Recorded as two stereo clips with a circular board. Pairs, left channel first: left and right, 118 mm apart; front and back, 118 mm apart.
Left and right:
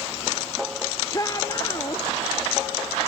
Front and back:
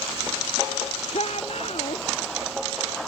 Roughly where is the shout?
Ahead left.